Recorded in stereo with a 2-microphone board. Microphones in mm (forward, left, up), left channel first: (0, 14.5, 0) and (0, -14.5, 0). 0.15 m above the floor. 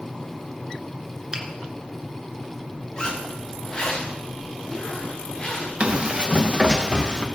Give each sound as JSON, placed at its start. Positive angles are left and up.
{"t": 1.3, "sound": "a finger snap", "side_deg": -25, "distance_m": 1.9}
{"t": 3.0, "sound": "a zipper", "side_deg": 30, "distance_m": 5.5}
{"t": 5.8, "sound": "running footsteps", "side_deg": -40, "distance_m": 3.5}